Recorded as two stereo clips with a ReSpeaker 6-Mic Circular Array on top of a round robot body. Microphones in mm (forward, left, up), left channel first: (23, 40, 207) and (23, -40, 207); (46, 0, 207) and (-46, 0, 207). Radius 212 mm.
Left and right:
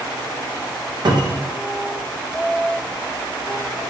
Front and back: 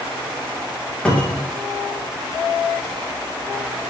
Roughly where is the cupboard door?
Right.